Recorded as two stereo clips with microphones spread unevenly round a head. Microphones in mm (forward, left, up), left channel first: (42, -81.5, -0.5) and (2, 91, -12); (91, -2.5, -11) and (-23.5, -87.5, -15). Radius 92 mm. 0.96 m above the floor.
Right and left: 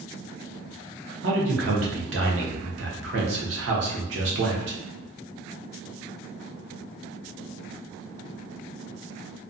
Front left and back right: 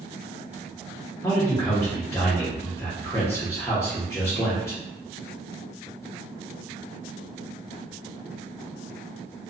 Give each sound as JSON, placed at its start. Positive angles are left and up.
{"t": 1.2, "sound": "a man speaking", "azimuth_deg": 115, "distance_m": 0.8}